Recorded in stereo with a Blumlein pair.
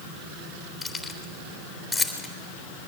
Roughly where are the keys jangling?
Ahead.